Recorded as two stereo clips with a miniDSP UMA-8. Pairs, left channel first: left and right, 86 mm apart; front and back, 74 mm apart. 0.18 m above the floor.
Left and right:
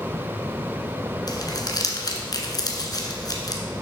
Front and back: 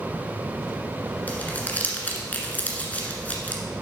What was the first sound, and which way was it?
Crumpling, 65° left.